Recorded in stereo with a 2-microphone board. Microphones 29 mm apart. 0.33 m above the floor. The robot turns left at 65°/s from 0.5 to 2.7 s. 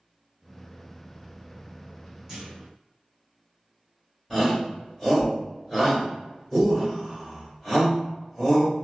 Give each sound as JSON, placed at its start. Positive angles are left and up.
{"t": 2.3, "sound": "a clunk", "side_deg": -20, "distance_m": 1.1}
{"t": 4.3, "sound": "a shout", "side_deg": -5, "distance_m": 1.5}